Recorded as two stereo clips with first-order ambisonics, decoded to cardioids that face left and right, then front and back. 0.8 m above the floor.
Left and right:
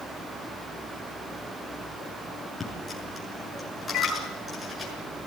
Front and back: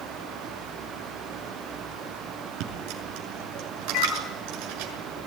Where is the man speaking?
No man speaking in this recording.